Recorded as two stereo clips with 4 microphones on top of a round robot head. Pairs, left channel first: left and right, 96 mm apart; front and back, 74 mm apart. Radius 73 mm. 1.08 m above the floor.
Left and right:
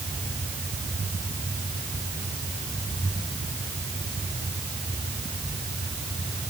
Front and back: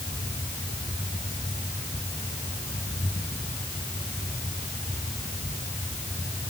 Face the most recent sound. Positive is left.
No sound to turn to.